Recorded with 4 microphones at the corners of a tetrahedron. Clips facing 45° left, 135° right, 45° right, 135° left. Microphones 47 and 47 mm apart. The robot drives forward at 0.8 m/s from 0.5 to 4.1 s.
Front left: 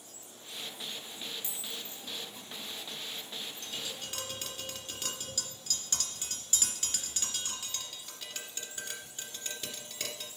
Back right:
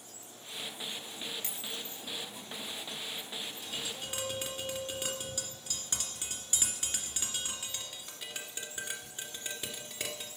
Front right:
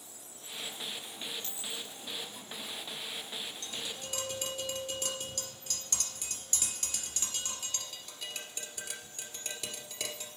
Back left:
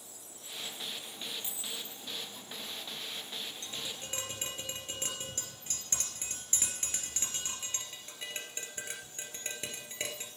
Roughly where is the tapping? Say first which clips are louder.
Back right 1 dB, front right 1 dB; behind left.